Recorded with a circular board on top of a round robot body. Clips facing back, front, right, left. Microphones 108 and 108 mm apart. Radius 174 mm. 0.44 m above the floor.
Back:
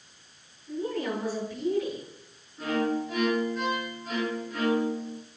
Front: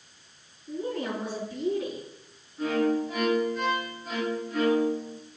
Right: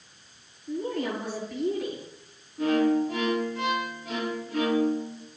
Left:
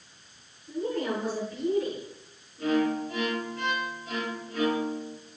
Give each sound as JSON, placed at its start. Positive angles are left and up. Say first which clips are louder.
{"t": 0.7, "sound": "a woman speaking", "louder": "back 1 dB, even", "azimuth_deg": -65, "distance_m": 8.5}
{"t": 2.6, "sound": "a violin", "louder": "front 2 dB, right 3 dB", "azimuth_deg": -90, "distance_m": 5.5}